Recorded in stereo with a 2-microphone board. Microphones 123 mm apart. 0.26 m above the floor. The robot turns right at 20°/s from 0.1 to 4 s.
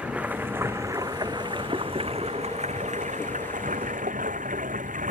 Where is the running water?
175° right; by 5.1 s 95° right.